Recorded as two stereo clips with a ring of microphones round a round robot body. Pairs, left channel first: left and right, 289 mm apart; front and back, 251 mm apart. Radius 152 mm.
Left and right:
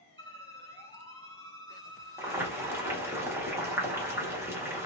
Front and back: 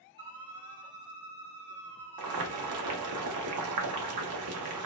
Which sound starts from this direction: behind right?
A violin, at 0.2 s.